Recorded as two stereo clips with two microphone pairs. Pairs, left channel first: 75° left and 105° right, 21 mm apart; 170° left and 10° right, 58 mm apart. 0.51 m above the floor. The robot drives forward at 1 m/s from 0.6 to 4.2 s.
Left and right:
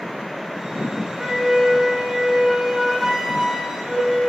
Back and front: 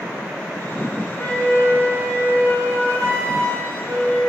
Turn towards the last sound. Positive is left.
turn(degrees=-175)